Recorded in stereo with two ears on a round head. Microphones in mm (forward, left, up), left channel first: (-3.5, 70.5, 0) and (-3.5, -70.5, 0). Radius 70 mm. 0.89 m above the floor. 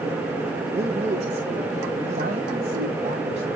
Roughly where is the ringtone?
No ringtone in this recording.